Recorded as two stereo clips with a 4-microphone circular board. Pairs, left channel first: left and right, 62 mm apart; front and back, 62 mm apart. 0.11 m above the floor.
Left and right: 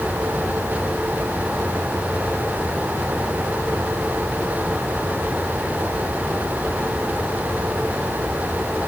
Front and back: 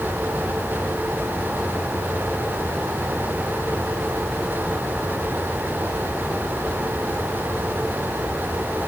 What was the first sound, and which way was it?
Only background noise.